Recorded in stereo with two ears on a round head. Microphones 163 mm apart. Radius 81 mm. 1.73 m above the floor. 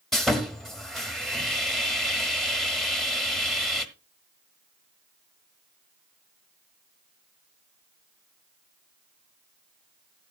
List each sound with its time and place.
0.1 s sawing: centre (ahead or behind), 1.0 m